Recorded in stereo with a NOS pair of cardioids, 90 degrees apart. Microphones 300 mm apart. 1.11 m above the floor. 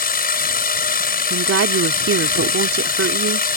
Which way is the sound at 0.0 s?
30° left.